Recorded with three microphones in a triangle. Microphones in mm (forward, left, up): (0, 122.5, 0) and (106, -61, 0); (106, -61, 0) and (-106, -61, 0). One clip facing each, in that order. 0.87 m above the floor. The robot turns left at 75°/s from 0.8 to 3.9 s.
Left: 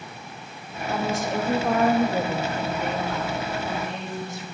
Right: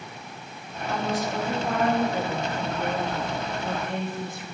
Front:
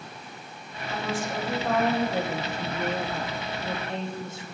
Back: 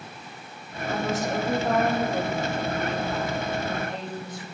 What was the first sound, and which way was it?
A woman speaking, 165° left.